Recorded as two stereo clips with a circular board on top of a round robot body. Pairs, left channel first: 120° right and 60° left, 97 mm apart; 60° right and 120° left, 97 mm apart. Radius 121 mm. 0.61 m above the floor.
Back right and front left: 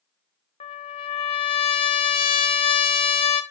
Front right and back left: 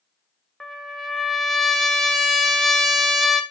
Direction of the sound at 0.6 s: 150° right.